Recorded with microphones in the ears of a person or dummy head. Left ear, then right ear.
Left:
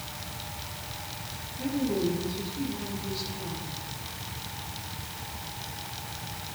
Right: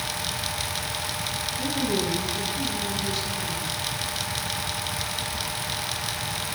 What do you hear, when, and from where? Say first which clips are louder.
1.6 s a woman speaking: right 1 dB; 80° right, 7 m